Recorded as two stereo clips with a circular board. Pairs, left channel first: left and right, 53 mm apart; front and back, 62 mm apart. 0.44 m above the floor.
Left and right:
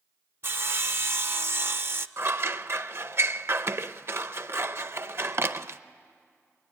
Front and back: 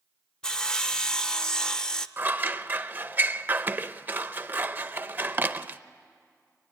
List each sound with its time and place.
0.4 s sawing: 75° right, 0.6 m
2.2 s scissors: 120° right, 0.5 m